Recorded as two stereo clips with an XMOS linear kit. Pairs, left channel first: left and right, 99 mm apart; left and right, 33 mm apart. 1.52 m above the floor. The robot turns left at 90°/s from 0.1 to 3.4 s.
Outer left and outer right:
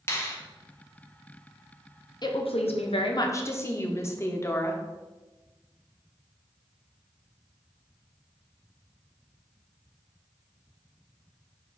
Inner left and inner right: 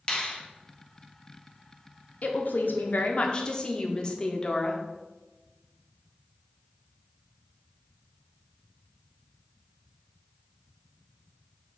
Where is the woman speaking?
135° left, 0.6 m; by 4.8 s 25° left, 0.6 m.